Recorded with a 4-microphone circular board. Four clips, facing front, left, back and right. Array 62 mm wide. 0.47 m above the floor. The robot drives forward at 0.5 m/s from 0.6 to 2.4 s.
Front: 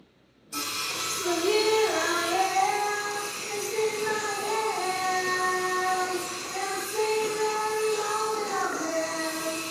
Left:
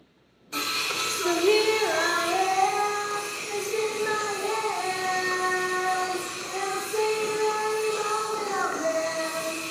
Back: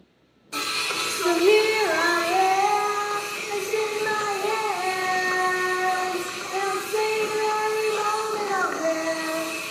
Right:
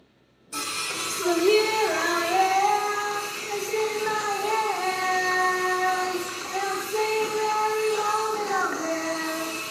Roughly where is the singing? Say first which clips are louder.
Left 2 dB, back 5 dB; behind left.